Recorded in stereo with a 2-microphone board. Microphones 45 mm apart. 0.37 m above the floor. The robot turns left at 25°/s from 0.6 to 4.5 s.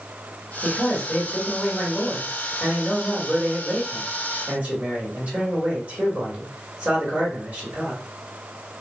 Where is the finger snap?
I don't hear a finger snap.